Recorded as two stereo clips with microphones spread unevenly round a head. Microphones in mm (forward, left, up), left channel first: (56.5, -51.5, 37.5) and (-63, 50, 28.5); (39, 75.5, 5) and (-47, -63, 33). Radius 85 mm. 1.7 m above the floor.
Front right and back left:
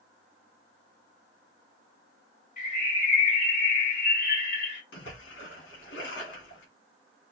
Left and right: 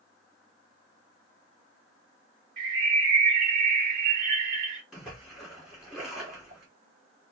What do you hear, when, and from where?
2.6 s a bird: 85° right, 2.5 m
4.9 s a splash: 40° right, 1.8 m